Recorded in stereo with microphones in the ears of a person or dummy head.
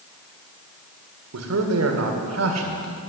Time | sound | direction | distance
1.3 | a man speaking | 80° right | 1.8 m